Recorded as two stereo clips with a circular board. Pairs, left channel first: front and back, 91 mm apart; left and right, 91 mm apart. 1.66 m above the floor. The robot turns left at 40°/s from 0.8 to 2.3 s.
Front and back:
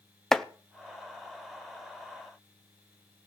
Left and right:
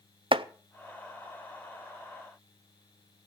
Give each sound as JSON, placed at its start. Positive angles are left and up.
{"t": 0.3, "sound": "chopping", "azimuth_deg": -85, "distance_m": 0.6}